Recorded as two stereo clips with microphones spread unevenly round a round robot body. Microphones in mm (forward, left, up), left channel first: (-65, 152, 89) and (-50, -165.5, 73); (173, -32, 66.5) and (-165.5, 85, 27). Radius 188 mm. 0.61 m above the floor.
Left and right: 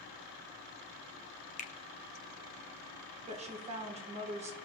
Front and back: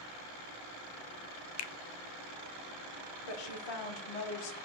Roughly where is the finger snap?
Ahead left.